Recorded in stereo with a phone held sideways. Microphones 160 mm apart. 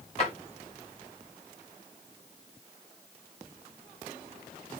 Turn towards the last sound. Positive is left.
turn(degrees=40)  # may be behind; listen again after turning